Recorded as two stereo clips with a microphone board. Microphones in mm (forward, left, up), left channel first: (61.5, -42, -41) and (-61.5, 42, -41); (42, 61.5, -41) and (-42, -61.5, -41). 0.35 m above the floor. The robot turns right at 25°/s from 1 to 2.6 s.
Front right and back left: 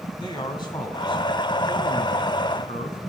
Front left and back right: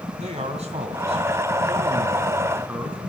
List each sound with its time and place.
0.2 s a man speaking: 90° right, 2.5 m; by 3.0 s 50° right, 2.5 m